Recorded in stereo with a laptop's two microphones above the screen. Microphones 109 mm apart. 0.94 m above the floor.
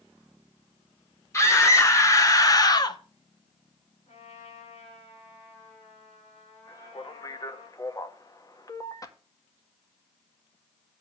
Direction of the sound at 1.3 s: 25° left (ahead or behind).